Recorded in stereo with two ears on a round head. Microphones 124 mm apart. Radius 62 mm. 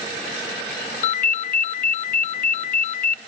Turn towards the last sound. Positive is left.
turn(degrees=60)  # may be behind; listen again after turning